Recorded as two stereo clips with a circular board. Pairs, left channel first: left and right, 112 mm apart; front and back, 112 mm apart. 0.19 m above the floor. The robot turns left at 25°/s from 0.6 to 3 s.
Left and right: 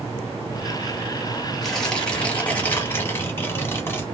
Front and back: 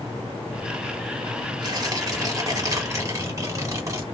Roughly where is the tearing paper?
Behind.